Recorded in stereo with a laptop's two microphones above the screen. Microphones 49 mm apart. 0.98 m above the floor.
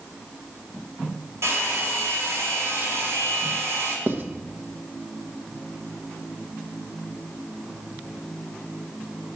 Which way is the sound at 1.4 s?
60° right (ahead or behind).